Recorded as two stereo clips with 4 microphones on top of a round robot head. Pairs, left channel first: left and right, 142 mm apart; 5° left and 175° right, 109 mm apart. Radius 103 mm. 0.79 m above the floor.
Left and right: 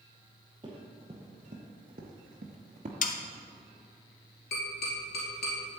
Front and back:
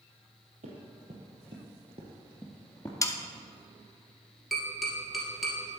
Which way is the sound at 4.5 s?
100° left.